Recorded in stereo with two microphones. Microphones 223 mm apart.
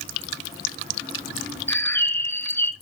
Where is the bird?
10° left (ahead or behind), 0.8 m.